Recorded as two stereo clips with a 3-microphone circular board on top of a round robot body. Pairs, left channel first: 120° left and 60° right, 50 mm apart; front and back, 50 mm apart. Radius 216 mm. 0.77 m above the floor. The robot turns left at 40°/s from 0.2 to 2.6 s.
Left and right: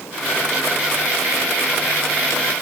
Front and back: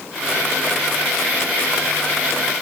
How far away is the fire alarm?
No fire alarm in this recording.